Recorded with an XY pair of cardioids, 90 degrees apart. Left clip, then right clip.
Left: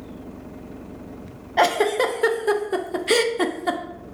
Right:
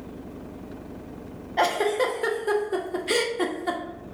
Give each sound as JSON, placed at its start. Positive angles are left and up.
{"t": 1.6, "sound": "a giggle", "azimuth_deg": 35, "distance_m": 0.5}